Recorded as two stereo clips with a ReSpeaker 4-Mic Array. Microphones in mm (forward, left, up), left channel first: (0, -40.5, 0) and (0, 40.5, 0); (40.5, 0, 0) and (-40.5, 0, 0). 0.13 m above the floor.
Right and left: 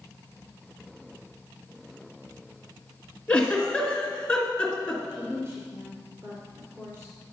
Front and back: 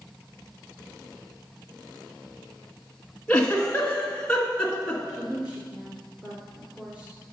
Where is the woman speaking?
115° left, 1.5 m.